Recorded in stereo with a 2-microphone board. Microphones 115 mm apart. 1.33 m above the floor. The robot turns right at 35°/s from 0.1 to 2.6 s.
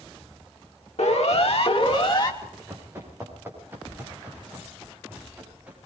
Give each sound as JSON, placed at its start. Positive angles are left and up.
{"t": 1.0, "sound": "a siren", "side_deg": 80, "distance_m": 2.0}
{"t": 2.4, "sound": "running footsteps", "side_deg": -15, "distance_m": 7.5}